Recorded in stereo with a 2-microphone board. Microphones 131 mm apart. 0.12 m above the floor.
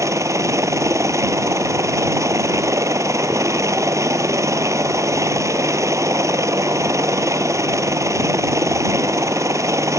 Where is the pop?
I don't hear a pop.